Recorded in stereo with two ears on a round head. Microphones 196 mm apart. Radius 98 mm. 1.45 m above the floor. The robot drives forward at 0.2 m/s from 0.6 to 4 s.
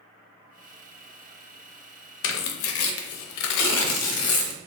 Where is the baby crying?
No baby crying in this recording.